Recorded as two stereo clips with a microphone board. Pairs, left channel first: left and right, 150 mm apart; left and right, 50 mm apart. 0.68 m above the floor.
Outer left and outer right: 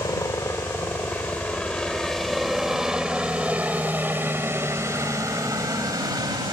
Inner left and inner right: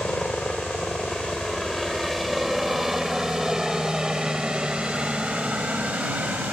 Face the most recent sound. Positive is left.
turn(degrees=-25)  # may be behind; listen again after turning